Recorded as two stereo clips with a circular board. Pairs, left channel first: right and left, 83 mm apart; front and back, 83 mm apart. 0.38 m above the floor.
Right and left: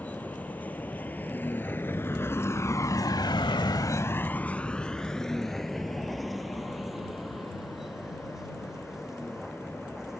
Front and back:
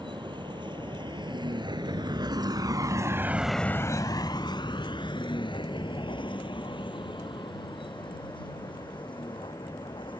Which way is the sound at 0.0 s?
165° right.